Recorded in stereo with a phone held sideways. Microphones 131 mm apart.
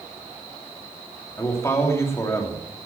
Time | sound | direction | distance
1.4 | a man speaking | 20° left (ahead or behind) | 3 m